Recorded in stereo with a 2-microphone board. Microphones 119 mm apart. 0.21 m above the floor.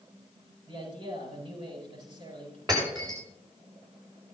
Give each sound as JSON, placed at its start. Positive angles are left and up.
{"t": 0.7, "sound": "a man speaking", "side_deg": -45, "distance_m": 8.5}
{"t": 2.7, "sound": "breaking glass", "side_deg": -35, "distance_m": 8.5}